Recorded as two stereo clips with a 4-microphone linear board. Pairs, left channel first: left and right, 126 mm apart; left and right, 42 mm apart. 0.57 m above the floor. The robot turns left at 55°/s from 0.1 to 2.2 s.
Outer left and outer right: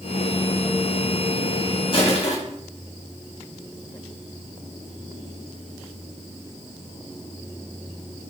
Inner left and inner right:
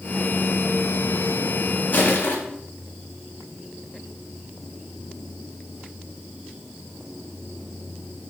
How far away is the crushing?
About 3.5 m.